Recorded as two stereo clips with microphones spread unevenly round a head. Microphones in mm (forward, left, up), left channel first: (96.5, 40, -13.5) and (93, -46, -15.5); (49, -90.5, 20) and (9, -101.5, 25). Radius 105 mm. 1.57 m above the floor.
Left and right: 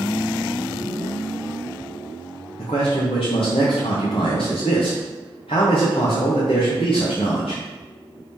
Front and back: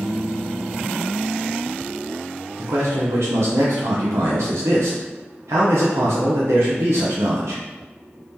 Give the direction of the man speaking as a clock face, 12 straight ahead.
7 o'clock.